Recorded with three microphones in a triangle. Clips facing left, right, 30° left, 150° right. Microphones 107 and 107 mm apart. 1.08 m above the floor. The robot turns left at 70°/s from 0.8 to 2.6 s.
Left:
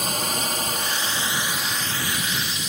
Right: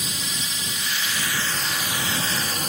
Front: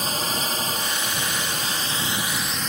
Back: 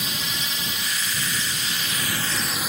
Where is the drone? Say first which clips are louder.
Left 7 dB, front 5 dB; 65° left; by 2.7 s 70° right.